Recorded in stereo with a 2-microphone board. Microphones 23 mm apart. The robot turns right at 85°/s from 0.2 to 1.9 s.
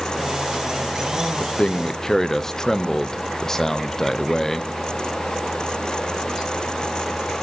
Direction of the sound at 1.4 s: 115° left.